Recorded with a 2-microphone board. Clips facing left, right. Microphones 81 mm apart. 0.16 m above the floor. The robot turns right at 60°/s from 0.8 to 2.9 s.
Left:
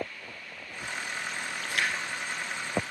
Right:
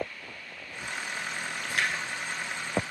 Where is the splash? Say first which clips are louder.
Even; 45° right (ahead or behind), 2.0 m; by 2.0 s 20° right (ahead or behind), 2.0 m.